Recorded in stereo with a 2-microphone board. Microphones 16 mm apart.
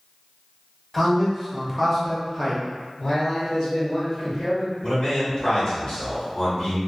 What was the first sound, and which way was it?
A man speaking, 10° left (ahead or behind).